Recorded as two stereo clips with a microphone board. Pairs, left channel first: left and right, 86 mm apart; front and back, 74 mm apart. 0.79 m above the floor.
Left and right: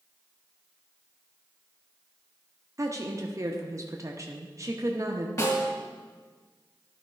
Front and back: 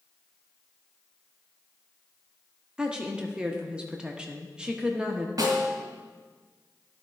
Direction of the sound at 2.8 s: 110° right.